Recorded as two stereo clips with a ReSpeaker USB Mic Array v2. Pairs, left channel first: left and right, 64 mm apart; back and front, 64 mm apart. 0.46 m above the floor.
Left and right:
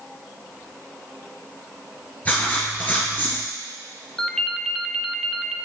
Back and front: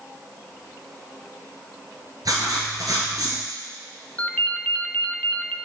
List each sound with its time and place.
2.2 s writing: 25° left, 2 m
4.2 s a ringtone: 165° left, 0.5 m